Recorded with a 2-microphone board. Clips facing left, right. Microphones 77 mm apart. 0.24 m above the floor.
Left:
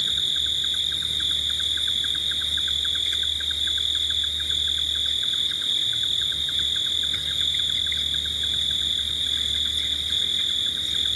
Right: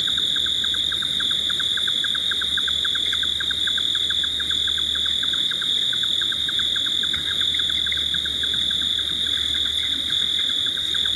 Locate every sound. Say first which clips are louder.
0.0 s an insect: right 3 dB; 45° right (ahead or behind)